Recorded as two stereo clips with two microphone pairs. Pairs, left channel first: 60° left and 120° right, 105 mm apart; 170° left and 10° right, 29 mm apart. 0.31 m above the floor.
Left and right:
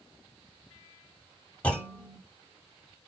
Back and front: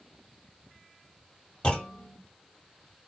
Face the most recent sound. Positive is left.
turn(degrees=135)